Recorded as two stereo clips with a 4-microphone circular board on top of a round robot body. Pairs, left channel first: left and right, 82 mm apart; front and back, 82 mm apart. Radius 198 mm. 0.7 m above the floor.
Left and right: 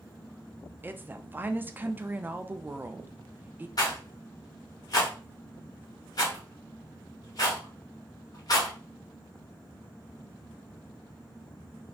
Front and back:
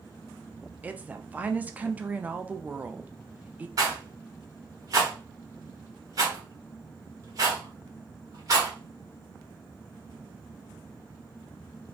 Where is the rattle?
130° left, 1.0 m.